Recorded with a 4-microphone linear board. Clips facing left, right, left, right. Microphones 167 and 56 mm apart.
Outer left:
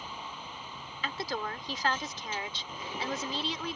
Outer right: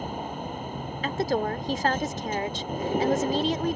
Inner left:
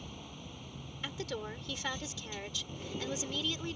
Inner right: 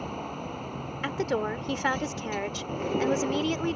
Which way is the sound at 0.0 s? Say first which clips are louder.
Outer right 11 dB, inner right 13 dB; 50° right (ahead or behind).